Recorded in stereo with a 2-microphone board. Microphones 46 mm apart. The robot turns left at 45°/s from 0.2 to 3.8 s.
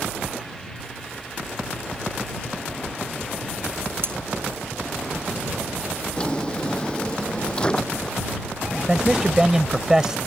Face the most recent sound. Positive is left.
turn(degrees=-10)  # may be behind; listen again after turning